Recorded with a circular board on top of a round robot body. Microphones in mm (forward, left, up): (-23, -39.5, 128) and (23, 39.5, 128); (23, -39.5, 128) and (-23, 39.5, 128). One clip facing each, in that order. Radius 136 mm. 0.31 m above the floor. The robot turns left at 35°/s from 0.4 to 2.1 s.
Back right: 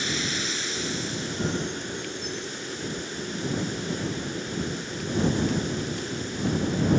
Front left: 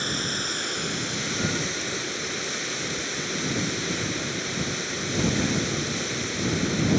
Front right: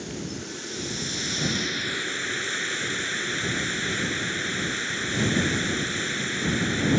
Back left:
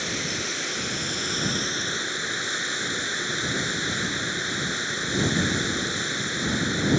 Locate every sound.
0.0 s running water: 105° left; by 7.0 s 45° left